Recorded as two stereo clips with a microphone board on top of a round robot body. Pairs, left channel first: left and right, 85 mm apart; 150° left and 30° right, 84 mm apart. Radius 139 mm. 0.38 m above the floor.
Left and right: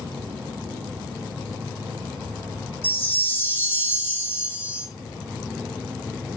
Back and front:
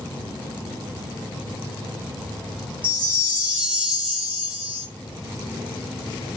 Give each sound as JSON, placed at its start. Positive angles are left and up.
{"t": 2.8, "sound": "a chime", "azimuth_deg": 35, "distance_m": 1.3}